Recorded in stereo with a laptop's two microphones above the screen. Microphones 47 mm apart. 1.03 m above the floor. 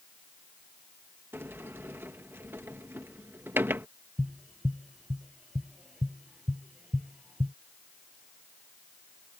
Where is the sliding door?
55° right (ahead or behind).